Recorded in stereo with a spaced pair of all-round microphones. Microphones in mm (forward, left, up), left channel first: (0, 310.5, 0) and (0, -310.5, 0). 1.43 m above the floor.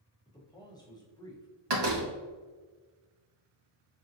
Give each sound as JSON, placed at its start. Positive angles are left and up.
{"t": 0.2, "sound": "a man speaking", "side_deg": 5, "distance_m": 1.1}
{"t": 1.7, "sound": "a door slam", "side_deg": -45, "distance_m": 0.7}